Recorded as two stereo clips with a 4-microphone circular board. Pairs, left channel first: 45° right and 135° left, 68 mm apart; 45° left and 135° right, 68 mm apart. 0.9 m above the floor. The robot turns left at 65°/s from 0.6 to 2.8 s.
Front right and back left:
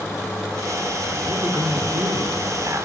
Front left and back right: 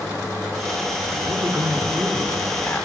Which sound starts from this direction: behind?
A man speaking, at 1.3 s.